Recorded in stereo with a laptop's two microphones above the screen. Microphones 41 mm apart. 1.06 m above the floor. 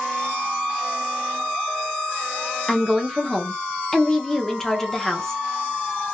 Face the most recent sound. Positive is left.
turn(degrees=10)  # may be behind; listen again after turning